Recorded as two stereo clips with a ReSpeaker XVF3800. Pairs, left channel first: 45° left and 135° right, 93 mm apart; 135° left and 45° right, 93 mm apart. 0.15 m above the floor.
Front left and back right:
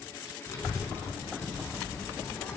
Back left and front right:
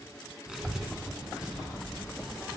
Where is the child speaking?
35° left, 1.4 m.